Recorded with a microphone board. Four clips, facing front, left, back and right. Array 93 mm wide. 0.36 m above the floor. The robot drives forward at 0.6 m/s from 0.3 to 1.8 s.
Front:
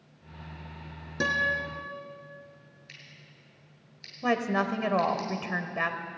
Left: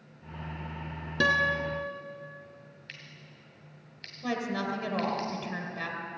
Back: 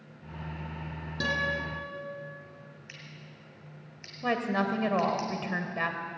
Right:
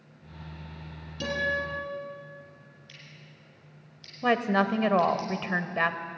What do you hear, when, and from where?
1.2 s a guitar: 75° left, 2.5 m; by 1.9 s 80° left, 2.5 m
2.9 s scissors: 115° left, 2.5 m
4.2 s a woman speaking: 75° right, 1.1 m